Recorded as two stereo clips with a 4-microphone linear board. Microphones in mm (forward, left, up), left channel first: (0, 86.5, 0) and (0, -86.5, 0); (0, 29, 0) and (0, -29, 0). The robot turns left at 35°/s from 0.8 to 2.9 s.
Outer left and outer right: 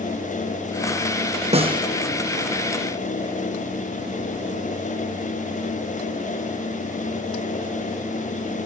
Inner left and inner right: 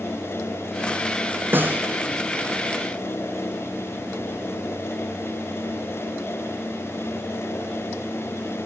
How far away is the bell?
No bell in this recording.